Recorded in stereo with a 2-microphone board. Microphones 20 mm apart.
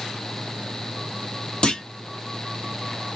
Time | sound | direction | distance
1.6 | a clunk | 40° left (ahead or behind) | 1.6 m